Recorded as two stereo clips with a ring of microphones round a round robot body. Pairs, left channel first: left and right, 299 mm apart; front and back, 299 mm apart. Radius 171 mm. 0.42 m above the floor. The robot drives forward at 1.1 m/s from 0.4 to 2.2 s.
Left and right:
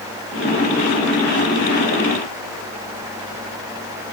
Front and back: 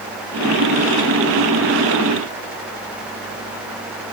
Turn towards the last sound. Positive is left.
No sound to turn to.